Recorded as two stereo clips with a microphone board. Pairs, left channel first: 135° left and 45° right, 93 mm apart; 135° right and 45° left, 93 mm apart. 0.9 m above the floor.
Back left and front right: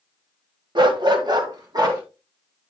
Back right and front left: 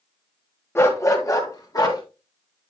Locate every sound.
0.8 s a dog barking: 75° right, 1.3 m; by 2.0 s 90° right, 2.5 m